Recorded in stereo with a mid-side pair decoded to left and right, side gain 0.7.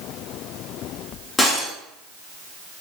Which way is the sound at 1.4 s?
15° left.